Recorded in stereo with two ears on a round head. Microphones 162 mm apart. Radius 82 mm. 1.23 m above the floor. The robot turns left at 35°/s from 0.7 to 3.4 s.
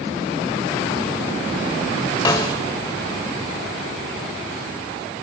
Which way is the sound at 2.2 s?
20° left (ahead or behind).